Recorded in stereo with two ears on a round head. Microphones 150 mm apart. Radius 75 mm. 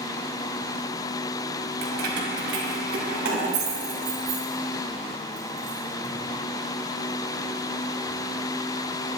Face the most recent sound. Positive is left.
turn(degrees=-75)  # may be behind; listen again after turning